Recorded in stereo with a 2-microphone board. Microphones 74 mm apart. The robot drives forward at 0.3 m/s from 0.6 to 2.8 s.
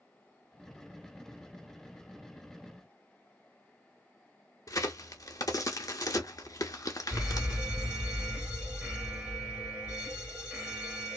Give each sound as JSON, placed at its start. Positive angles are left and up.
{"t": 4.7, "sound": "a crack", "side_deg": 50, "distance_m": 0.7}
{"t": 7.1, "sound": "a fire alarm", "side_deg": -20, "distance_m": 1.9}